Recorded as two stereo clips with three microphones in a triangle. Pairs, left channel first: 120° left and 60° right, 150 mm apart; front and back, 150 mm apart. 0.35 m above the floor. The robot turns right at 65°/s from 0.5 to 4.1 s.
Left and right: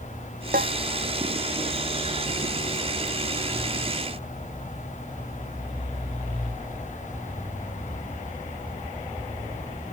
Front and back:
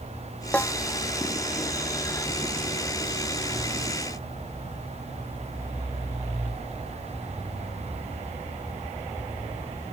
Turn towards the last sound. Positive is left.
turn(degrees=150)